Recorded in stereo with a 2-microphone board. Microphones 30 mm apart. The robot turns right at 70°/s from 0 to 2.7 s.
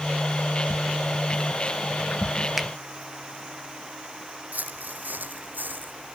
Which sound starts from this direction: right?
Footsteps, at 4.5 s.